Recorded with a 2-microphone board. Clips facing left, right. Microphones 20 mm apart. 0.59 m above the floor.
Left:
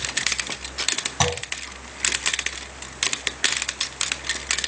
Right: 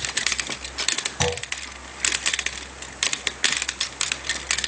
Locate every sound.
1.2 s a clunk: 30° left (ahead or behind), 3 m